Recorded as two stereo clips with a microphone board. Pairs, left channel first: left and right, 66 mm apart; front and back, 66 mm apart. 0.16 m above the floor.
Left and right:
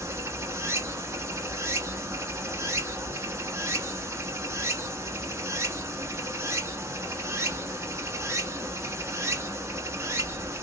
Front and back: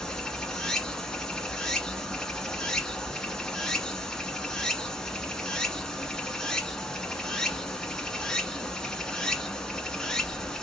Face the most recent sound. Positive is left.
turn(degrees=-75)